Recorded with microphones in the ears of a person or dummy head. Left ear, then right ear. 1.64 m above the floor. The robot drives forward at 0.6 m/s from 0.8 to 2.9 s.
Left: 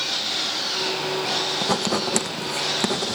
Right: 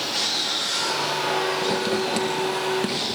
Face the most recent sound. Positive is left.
turn(degrees=30)  # may be behind; listen again after turning